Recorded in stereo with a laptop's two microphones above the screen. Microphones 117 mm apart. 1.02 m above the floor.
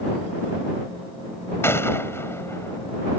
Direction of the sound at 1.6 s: 20° left (ahead or behind).